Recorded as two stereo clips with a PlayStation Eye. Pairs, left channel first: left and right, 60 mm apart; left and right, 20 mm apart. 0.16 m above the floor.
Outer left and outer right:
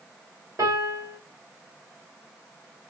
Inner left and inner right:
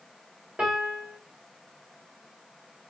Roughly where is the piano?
Right.